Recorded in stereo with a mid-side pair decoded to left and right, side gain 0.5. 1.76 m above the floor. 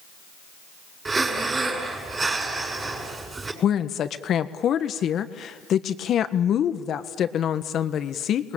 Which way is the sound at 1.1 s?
30° right.